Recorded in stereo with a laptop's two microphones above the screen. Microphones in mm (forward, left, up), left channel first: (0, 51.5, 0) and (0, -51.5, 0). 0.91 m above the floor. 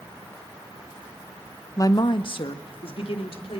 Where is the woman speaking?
30° left (ahead or behind), 0.8 m; by 3.6 s 65° left (ahead or behind), 3.5 m.